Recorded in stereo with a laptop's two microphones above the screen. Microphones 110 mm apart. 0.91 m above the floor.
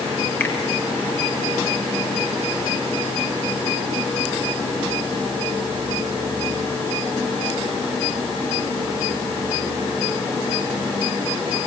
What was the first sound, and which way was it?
A finger snap, 15° left (ahead or behind).